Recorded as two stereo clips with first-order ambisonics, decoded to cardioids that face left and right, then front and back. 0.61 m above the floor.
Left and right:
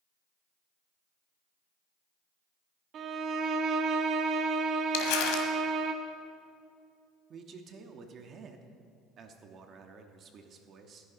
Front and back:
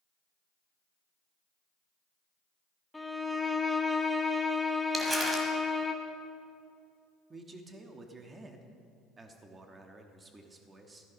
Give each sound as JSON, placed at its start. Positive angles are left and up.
{"t": 2.9, "sound": "a violin", "azimuth_deg": -80, "distance_m": 1.0}
{"t": 4.9, "sound": "crumpling", "azimuth_deg": 100, "distance_m": 1.6}
{"t": 7.3, "sound": "a man speaking", "azimuth_deg": -120, "distance_m": 1.0}